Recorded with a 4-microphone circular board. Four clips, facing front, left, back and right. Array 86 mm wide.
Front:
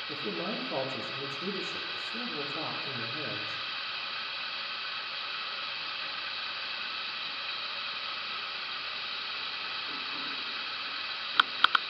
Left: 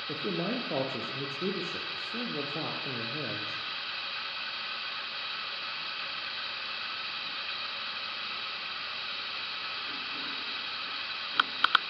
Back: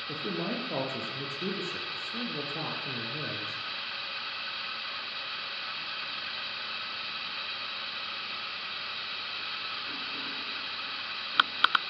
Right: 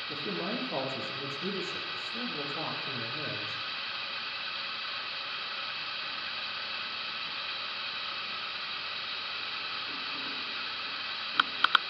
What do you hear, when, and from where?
0.1 s a man speaking: 110° left, 5.5 m